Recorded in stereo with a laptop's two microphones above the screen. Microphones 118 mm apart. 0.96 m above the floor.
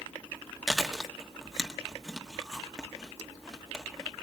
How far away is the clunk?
No clunk in this recording.